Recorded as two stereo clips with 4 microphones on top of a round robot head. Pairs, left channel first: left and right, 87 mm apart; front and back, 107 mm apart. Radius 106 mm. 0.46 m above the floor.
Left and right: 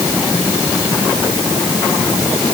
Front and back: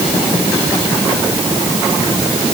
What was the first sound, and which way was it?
Only background noise.